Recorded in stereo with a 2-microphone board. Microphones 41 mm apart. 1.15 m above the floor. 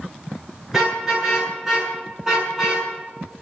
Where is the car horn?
10° right (ahead or behind), 9 m; by 2.9 s 15° right (ahead or behind), 6.5 m.